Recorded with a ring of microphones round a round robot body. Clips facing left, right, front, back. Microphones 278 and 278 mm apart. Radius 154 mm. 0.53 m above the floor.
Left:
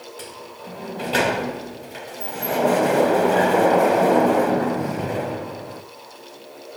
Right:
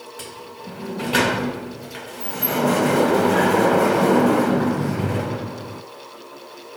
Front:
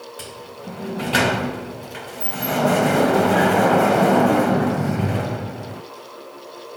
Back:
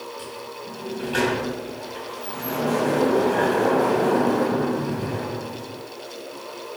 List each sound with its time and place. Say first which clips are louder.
0.2 s a sliding door: right 1 dB, even; 15° right, 1.9 m